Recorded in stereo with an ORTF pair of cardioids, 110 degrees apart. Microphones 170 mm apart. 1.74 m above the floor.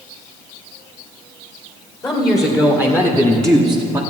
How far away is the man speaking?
About 2.5 m.